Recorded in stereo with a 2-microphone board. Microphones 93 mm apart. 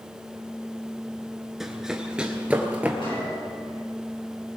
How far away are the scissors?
I don't hear scissors.